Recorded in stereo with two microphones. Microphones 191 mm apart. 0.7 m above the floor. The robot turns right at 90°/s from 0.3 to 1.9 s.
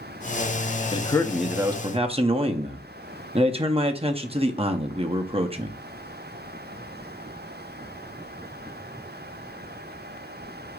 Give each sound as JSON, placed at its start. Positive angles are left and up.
{"t": 0.9, "sound": "a man speaking", "azimuth_deg": 135, "distance_m": 0.6}